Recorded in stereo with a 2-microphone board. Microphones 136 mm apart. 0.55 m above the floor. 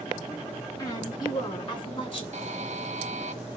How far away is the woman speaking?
About 5.5 m.